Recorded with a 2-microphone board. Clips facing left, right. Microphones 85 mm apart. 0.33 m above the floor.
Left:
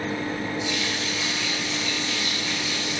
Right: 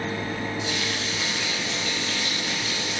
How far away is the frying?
About 5 m.